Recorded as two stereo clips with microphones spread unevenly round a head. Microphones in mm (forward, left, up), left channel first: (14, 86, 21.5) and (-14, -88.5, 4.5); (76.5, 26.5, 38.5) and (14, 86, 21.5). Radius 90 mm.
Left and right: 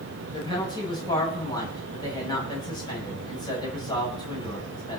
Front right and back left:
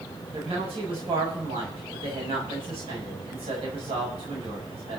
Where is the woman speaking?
150° left, 7.5 m.